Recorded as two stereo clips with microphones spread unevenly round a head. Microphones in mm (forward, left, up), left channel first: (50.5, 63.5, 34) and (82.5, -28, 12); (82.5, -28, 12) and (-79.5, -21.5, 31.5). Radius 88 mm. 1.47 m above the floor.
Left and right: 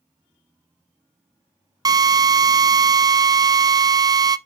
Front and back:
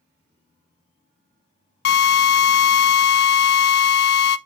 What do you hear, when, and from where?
1.9 s a drill: 15° right, 0.5 m